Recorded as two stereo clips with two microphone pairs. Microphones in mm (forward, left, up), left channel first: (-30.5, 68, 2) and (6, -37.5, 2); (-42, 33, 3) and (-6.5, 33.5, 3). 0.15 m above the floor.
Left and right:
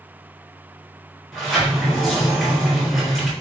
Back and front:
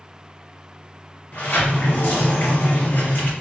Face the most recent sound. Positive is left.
turn(degrees=-160)